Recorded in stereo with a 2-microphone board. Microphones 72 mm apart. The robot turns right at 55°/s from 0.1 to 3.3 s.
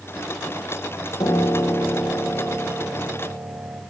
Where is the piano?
100° left, 2 m; by 3.8 s 145° right, 2 m.